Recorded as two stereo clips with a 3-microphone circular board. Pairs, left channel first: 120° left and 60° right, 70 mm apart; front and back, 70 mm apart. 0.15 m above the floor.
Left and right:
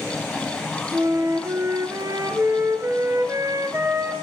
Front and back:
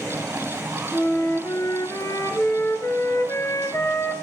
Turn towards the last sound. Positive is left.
turn(degrees=-35)